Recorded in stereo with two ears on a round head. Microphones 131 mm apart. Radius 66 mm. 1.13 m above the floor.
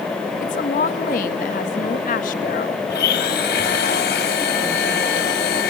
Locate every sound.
0.4 s a woman speaking: 55° left (ahead or behind), 1.6 m
2.9 s a blender: 85° left, 3.5 m